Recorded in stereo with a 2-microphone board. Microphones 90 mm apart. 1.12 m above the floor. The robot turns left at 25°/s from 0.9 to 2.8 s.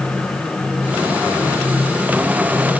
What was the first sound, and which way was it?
Only background noise.